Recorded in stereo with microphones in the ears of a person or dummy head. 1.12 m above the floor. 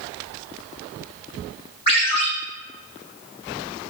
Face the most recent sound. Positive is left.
turn(degrees=50)  # may be behind; listen again after turning